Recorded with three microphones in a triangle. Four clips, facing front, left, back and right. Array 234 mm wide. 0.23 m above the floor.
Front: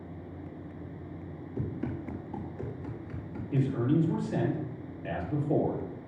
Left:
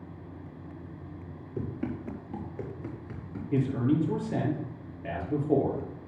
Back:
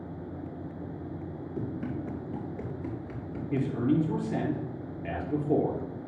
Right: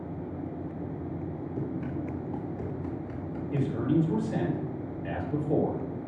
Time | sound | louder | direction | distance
1.6 | running footsteps | left 1 dB, back 1 dB | 105° left | 4 m
3.5 | a man speaking | left 1 dB, back 1 dB | 130° left | 4.5 m